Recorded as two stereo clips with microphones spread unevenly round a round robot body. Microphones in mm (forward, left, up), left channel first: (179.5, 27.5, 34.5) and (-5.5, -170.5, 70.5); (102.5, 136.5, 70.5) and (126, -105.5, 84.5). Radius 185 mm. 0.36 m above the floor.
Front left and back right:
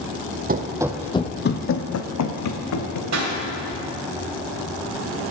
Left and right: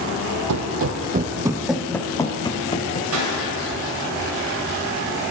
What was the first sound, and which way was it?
Running footsteps, 80° right.